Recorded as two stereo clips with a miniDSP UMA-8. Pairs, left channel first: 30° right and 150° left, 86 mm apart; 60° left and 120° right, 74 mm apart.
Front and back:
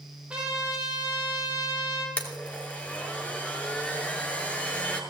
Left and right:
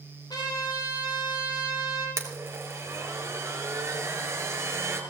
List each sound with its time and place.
0.3 s a trumpet: 75° left, 3.5 m
2.2 s a blender: 100° right, 1.9 m